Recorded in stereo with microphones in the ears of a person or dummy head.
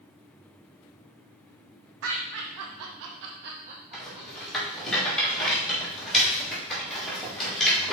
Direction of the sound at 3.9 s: Centre (ahead or behind).